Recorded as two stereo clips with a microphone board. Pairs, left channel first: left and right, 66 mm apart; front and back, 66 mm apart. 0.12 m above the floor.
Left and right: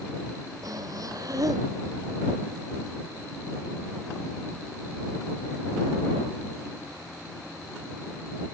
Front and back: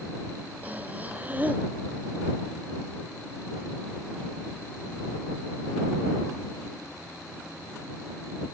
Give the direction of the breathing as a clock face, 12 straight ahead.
4 o'clock.